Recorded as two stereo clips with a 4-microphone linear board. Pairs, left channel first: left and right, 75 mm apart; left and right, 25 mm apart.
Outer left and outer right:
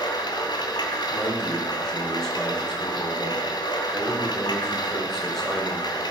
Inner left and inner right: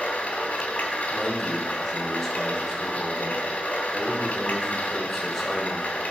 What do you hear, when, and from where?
0.0 s running water: 80° left, 2.5 m
1.1 s a man speaking: 5° left (ahead or behind), 4 m